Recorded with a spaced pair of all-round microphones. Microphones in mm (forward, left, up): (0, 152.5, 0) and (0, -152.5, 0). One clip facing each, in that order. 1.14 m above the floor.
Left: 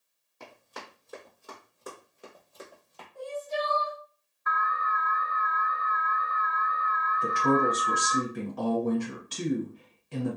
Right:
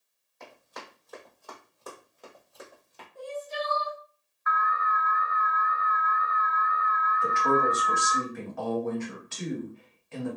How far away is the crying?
About 1.3 m.